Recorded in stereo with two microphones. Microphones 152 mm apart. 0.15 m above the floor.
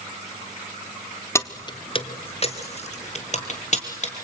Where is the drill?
I don't hear a drill.